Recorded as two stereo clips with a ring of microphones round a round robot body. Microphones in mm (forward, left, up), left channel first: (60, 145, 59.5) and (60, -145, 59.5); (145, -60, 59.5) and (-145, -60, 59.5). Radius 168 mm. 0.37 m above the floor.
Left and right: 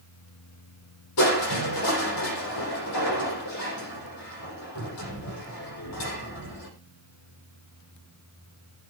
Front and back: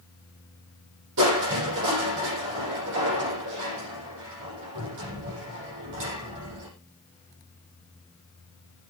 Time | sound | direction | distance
1.2 | crushing | 130° left | 7 m